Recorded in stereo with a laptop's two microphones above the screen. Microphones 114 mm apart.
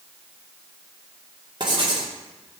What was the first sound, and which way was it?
Writing, 40° right (ahead or behind).